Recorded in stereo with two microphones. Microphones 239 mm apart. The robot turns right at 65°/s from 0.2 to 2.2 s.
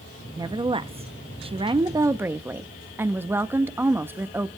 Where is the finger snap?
No finger snap in this recording.